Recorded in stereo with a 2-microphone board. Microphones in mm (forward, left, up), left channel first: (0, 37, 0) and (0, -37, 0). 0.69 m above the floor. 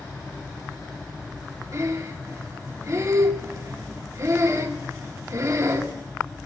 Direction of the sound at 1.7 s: 40° right (ahead or behind).